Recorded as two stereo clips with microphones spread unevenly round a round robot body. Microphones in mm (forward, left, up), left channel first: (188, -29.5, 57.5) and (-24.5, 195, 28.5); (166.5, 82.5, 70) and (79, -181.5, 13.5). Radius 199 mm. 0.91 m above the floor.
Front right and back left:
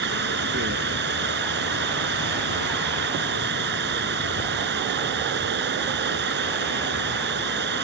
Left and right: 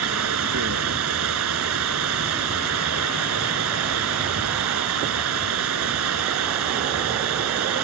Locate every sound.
0.0 s running water: 160° right